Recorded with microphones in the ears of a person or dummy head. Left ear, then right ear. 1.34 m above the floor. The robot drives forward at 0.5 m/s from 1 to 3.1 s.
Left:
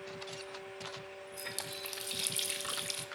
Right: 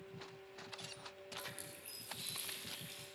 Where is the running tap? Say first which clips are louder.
Left 10 dB; 45° left (ahead or behind), 1.3 m; by 3.0 s 75° left (ahead or behind), 0.9 m.